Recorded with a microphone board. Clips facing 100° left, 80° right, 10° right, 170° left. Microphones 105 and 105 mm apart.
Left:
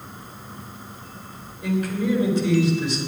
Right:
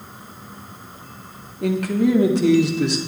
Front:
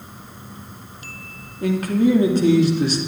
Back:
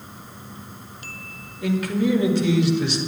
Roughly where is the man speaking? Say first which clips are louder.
Right 5 dB, front 4 dB; ahead right.